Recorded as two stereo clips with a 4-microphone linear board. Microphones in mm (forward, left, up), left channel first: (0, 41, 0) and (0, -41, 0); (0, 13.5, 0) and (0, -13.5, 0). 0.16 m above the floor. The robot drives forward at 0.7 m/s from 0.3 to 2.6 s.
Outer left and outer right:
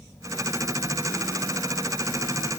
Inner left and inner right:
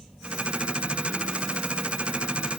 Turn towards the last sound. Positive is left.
No sound to turn to.